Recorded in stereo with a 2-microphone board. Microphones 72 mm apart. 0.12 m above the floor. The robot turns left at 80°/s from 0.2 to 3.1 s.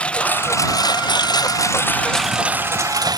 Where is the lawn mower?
165° left; by 3.2 s 70° right.